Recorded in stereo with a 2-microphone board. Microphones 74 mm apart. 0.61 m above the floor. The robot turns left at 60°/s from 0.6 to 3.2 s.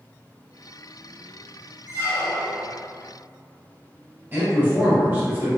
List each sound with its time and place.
1.9 s a squeak: 150° left, 1.9 m; by 2.7 s 100° left, 1.9 m
4.3 s a man speaking: 25° right (ahead or behind), 1.2 m